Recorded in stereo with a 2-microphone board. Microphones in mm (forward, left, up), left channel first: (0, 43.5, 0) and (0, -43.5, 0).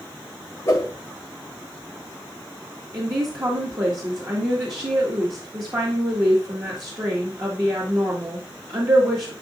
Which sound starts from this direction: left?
A whoosh, at 0.7 s.